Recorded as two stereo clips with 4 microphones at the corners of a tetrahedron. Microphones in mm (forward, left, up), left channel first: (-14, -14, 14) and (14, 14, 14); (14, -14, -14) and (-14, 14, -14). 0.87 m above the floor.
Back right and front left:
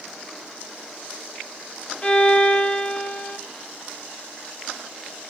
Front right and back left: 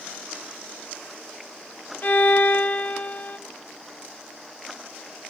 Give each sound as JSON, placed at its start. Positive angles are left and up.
{"t": 2.0, "sound": "a violin", "azimuth_deg": -75, "distance_m": 0.8}